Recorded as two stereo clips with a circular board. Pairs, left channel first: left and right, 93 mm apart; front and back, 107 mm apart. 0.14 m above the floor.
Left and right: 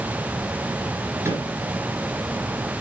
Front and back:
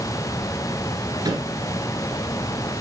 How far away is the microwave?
About 2 m.